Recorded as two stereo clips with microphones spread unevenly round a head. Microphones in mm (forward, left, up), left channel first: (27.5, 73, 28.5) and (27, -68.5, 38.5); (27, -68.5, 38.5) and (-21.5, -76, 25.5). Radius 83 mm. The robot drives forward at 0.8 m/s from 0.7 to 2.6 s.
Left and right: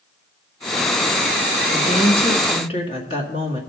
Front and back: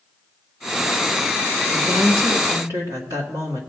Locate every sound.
1.7 s a woman speaking: 130° left, 1.5 m; by 3.6 s 145° left, 2 m